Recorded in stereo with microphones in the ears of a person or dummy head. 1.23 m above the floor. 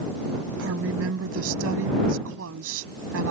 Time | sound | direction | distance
0.6 | a woman speaking | 70° right (ahead or behind) | ?